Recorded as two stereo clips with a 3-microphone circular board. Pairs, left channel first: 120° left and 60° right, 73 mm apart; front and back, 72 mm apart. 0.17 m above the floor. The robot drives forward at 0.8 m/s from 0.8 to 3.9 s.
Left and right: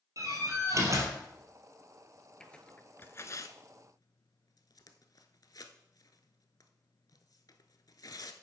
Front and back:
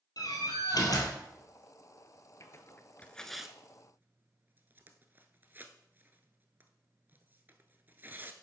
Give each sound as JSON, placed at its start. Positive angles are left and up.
{"t": 0.2, "sound": "a door slam", "azimuth_deg": -20, "distance_m": 2.5}
{"t": 2.4, "sound": "tearing paper", "azimuth_deg": 40, "distance_m": 1.1}